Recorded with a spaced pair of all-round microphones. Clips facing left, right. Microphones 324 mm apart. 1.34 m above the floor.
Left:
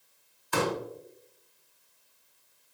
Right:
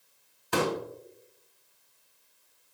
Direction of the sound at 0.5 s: 70° right (ahead or behind).